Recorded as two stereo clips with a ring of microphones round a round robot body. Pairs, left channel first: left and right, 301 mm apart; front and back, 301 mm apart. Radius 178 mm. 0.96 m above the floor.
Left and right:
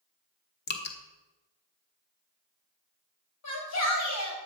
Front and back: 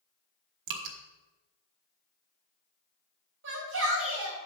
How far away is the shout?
About 5.5 m.